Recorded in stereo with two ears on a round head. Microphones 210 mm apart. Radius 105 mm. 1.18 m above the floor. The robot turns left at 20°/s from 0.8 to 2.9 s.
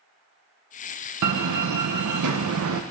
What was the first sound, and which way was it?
A door slam, 85° right.